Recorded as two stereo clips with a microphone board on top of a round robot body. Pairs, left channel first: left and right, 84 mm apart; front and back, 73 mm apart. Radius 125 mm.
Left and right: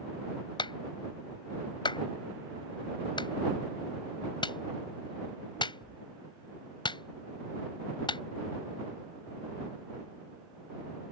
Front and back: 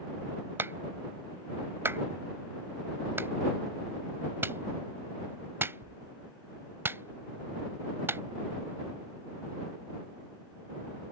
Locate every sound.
0.6 s a clap: 120° left